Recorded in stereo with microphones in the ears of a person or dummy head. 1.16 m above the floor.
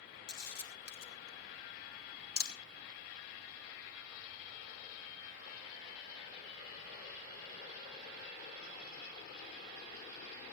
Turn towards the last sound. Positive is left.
turn(degrees=75)  # may be behind; listen again after turning